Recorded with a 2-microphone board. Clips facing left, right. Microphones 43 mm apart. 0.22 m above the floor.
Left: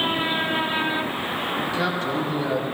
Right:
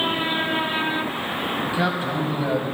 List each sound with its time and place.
1.6 s a man speaking: 15° right (ahead or behind), 1.5 m